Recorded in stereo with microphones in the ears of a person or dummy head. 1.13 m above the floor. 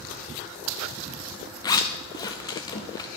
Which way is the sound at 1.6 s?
25° left (ahead or behind).